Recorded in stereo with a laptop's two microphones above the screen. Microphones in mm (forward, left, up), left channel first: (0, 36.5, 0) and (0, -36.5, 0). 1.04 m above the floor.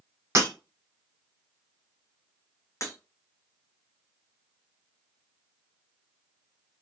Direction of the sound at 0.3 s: 35° right (ahead or behind).